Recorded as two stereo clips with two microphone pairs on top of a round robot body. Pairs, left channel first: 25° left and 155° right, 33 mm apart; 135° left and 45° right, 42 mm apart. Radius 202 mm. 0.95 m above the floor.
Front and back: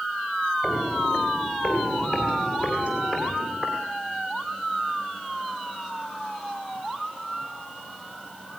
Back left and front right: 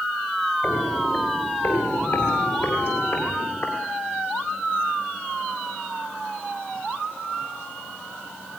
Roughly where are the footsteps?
Behind left.